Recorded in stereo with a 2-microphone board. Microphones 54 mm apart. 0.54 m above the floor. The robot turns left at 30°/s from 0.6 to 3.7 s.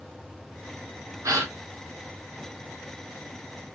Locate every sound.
1.2 s a gasp: 75° right (ahead or behind), 1.4 m